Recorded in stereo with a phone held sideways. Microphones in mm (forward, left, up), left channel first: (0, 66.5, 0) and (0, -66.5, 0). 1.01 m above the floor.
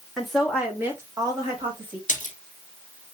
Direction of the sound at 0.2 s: Centre (ahead or behind).